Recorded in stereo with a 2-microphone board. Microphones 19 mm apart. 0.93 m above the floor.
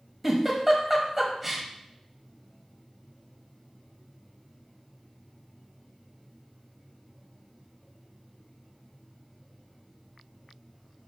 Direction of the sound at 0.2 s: 5° right (ahead or behind).